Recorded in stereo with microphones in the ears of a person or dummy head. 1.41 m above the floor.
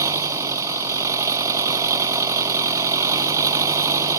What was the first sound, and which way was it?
An engine running, 20° right (ahead or behind).